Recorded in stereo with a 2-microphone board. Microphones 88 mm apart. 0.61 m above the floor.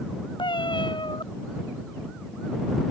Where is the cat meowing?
80° left.